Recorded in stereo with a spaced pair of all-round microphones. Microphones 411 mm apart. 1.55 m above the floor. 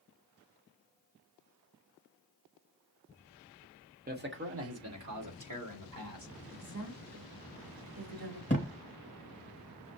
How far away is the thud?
About 1.4 m.